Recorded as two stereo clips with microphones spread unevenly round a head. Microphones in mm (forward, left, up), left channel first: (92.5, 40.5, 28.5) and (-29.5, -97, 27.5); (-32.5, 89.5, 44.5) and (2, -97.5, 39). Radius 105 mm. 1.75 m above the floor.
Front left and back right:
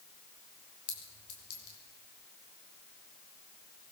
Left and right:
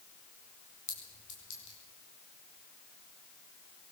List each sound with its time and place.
0.9 s a clink: 65° left, 5.5 m